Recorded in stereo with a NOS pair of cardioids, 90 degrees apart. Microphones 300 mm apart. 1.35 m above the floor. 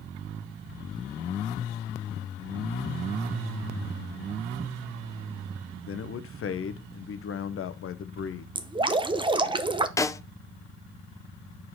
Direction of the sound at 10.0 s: 10° left.